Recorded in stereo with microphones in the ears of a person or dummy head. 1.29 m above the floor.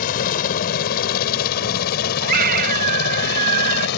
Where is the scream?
50° right (ahead or behind).